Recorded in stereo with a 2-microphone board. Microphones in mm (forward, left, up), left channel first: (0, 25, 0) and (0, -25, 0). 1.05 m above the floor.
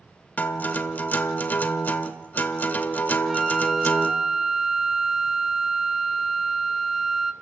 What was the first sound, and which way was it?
A guitar, 35° left (ahead or behind).